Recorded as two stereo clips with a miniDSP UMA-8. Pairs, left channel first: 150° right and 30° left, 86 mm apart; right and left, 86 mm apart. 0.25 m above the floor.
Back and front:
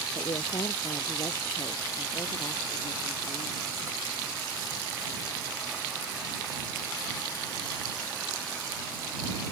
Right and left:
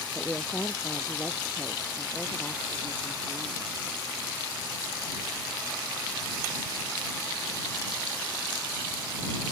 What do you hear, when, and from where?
0.1 s a woman speaking: 155° right; by 3.7 s 175° left